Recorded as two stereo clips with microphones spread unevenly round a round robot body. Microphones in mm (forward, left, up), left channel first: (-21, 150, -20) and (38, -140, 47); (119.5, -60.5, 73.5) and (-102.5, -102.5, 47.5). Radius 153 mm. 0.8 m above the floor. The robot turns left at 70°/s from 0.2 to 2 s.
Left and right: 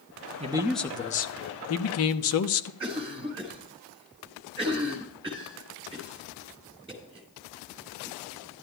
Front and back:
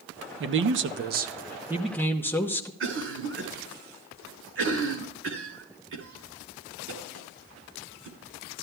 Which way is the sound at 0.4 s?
155° right.